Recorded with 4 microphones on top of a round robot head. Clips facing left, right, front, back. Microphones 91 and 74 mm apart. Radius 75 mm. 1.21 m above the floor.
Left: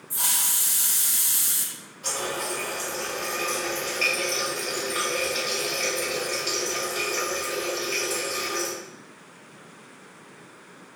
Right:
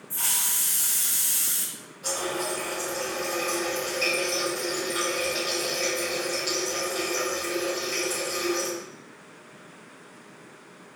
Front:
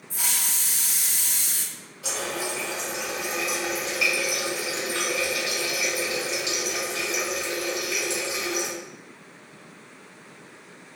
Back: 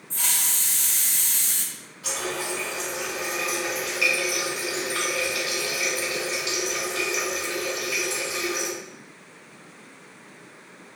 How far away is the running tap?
About 1.2 m.